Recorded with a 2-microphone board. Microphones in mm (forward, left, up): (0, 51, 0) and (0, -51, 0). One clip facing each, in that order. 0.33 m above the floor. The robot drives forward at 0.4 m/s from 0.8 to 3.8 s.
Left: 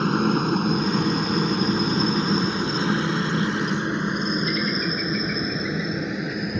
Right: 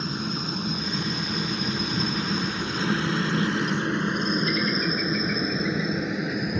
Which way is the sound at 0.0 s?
60° left (ahead or behind).